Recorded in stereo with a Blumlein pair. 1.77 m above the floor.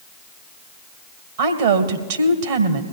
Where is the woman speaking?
55° right, 1.7 m.